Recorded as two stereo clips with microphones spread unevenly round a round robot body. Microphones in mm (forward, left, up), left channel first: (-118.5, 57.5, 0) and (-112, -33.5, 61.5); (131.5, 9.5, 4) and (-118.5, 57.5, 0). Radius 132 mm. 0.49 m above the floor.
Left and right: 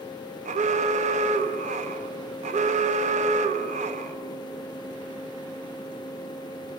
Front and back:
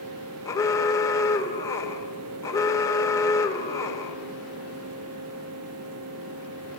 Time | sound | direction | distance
0.5 | an alarm | 90° right | 1.5 m